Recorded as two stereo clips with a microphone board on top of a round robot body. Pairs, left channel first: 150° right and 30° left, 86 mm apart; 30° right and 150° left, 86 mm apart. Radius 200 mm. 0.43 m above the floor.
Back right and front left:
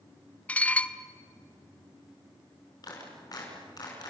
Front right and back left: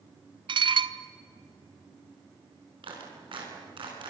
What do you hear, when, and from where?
0.5 s dishes clattering: 135° left, 0.9 m
2.8 s a clap: 165° left, 5.5 m